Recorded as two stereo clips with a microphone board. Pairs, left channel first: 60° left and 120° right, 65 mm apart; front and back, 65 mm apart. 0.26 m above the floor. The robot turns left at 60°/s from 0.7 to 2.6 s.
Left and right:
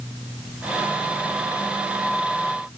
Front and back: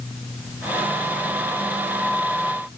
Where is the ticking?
I don't hear ticking.